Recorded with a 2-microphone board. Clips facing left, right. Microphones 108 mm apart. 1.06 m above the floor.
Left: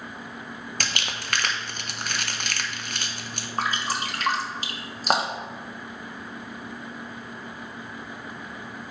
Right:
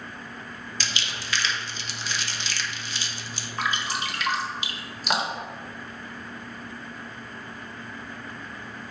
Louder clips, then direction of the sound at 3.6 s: Left 1 dB; 40° left (ahead or behind).